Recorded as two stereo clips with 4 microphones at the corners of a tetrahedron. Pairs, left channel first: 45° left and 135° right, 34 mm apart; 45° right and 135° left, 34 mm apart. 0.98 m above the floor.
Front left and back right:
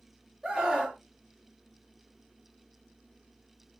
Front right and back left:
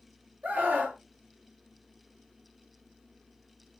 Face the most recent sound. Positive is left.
turn(degrees=155)